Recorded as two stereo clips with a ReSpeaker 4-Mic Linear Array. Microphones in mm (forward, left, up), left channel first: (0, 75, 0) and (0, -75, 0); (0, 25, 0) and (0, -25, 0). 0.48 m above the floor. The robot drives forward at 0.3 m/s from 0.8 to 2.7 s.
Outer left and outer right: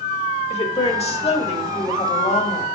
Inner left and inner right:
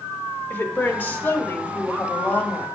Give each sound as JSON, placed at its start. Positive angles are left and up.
{"t": 0.5, "sound": "a woman speaking", "side_deg": 45, "distance_m": 1.5}